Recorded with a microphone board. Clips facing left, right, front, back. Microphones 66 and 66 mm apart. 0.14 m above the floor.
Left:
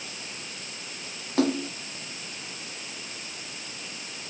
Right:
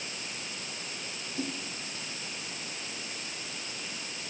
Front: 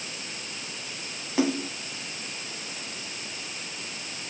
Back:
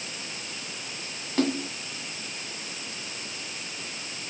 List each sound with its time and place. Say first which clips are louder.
1.4 s a splash: left 13 dB, front 1 dB; 80° left